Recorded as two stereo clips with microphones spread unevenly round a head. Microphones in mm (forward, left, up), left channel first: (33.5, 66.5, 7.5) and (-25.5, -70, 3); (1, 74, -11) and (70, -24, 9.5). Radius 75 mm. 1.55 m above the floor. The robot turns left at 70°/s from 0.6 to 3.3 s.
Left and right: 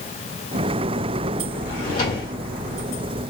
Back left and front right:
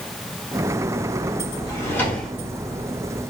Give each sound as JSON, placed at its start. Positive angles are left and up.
{"t": 1.7, "sound": "a drawer", "azimuth_deg": 70, "distance_m": 1.4}